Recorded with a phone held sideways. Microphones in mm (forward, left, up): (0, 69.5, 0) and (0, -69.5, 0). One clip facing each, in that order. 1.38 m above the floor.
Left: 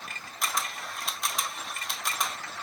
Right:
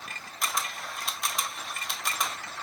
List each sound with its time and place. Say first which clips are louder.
0.4 s a camera shutter: even; centre (ahead or behind), 0.8 m